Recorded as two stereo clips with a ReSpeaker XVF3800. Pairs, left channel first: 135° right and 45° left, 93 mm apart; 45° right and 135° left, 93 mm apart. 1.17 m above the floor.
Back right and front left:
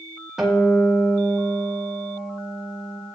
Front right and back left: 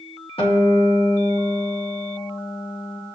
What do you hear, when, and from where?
0.4 s a guitar: 40° right, 1.5 m